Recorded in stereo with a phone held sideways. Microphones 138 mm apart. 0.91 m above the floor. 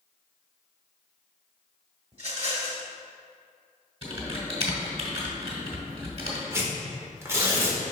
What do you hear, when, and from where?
2.1 s a rattle: 45° right (ahead or behind), 1.5 m
4.0 s typing on a keyboard: 45° right (ahead or behind), 1.7 m
6.5 s tearing paper: 20° right (ahead or behind), 1.2 m